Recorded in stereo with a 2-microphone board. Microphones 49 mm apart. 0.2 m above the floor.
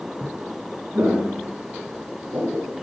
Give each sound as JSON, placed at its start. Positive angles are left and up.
{"t": 0.9, "sound": "footsteps", "side_deg": -45, "distance_m": 4.0}